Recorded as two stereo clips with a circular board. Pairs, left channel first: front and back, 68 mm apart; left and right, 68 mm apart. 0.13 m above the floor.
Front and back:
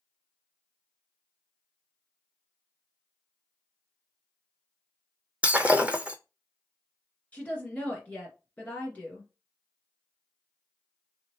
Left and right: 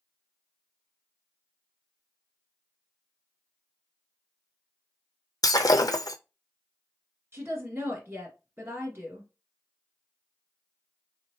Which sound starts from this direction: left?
Breaking glass, at 5.4 s.